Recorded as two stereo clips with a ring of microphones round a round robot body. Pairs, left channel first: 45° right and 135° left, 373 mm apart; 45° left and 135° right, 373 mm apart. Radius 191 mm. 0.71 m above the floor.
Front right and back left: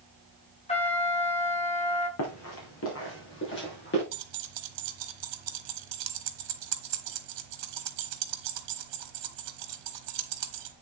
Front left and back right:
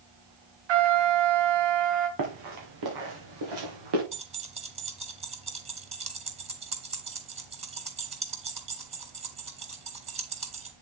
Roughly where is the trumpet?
Behind right.